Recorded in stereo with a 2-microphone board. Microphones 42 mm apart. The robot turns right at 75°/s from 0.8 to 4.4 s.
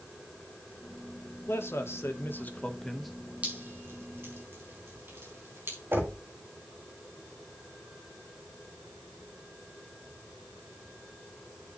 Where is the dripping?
30° right (ahead or behind), 4 m; by 5.8 s 70° right (ahead or behind), 4 m.